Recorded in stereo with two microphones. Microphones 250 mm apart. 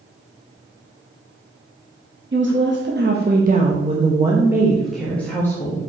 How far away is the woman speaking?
About 1.3 m.